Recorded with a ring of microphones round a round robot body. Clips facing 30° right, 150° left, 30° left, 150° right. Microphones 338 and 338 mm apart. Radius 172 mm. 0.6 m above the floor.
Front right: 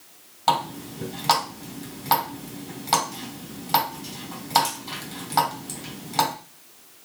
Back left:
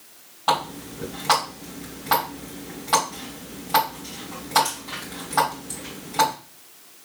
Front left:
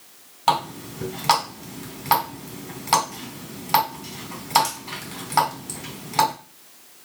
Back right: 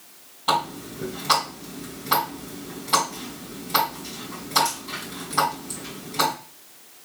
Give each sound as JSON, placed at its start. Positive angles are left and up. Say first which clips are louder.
{"t": 0.5, "sound": "a running tap", "louder": "back left 1 dB, front left 1 dB", "azimuth_deg": 25, "distance_m": 3.5}